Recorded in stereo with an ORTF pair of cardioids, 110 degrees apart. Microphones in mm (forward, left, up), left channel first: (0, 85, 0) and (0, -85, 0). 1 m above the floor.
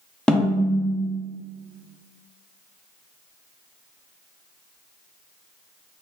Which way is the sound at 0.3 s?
5° left.